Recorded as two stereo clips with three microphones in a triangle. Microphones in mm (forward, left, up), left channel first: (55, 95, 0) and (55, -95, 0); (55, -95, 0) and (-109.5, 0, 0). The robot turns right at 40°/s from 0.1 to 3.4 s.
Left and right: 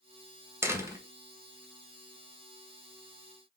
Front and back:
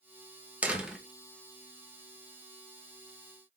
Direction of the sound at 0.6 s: 140° right.